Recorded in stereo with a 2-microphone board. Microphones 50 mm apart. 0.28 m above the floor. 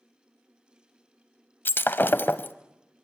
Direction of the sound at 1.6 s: 40° left (ahead or behind).